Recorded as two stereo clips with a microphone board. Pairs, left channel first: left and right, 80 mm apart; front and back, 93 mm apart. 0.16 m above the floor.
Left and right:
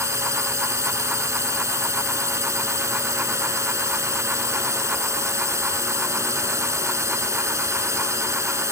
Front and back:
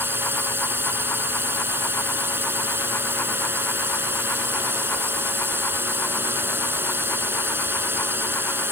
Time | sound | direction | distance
0.0 | a drone | 125° right | ?